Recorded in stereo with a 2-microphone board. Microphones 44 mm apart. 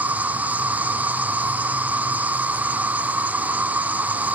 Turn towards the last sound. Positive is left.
turn(degrees=-35)  # may be behind; listen again after turning